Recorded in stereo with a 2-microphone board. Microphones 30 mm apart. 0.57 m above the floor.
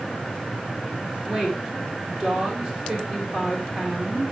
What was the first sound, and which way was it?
A woman speaking, 20° right (ahead or behind).